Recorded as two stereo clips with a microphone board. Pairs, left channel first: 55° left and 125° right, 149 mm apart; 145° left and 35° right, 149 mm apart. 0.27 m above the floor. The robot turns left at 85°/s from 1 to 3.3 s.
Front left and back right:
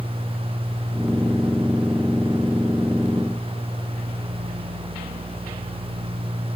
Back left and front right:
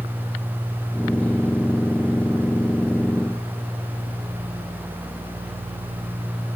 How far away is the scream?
I don't hear a scream.